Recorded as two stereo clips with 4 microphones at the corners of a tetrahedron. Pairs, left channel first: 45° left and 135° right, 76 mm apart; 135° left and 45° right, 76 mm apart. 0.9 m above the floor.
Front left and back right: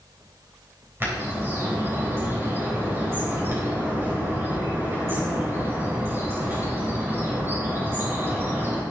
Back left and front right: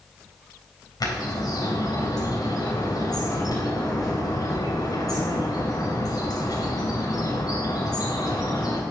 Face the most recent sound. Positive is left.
turn(degrees=165)